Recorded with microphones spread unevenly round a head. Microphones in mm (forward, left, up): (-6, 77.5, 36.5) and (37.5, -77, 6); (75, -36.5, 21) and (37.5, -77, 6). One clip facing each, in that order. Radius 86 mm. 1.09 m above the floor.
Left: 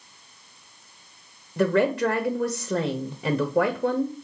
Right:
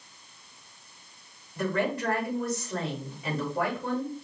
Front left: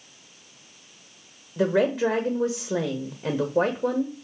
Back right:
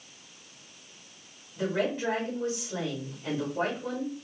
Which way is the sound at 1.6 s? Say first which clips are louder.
Left 7 dB, front left 7 dB; 75° left.